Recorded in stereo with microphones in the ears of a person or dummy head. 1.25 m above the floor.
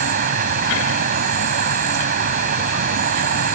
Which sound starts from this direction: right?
An insect, at 0.0 s.